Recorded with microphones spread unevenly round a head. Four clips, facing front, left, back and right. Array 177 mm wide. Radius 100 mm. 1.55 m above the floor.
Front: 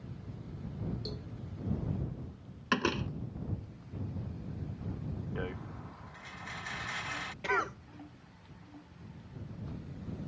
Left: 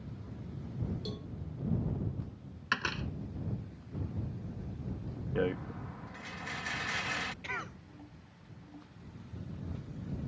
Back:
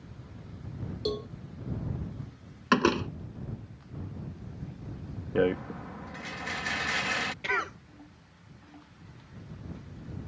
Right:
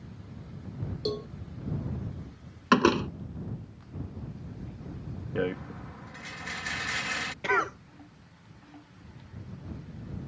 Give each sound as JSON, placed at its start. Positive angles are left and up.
{"t": 1.1, "sound": "a cowbell", "azimuth_deg": -135}
{"t": 2.7, "sound": "a door slam", "azimuth_deg": -115}
{"t": 5.3, "sound": "a rattle", "azimuth_deg": 180}
{"t": 7.4, "sound": "a cough", "azimuth_deg": -85}